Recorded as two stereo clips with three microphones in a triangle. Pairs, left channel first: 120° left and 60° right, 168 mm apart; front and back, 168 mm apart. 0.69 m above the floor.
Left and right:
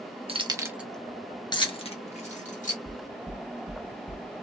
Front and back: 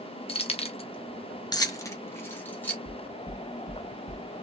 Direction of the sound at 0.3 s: 30° right.